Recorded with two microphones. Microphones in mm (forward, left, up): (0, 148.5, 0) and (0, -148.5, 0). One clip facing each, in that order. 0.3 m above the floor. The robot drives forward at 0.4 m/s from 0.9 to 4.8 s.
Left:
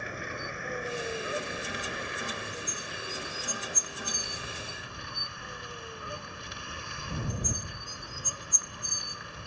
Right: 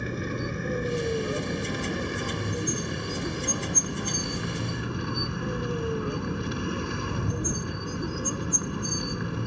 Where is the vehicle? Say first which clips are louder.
Right 9 dB; 45° right (ahead or behind); by 9.5 s 65° right (ahead or behind).